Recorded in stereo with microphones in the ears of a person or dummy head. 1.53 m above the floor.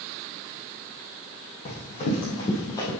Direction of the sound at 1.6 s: 35° left (ahead or behind).